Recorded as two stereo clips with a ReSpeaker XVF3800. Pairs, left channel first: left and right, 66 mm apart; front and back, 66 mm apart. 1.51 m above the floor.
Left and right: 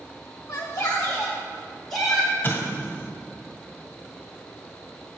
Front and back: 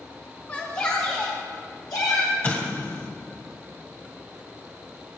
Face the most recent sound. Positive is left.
turn(degrees=40)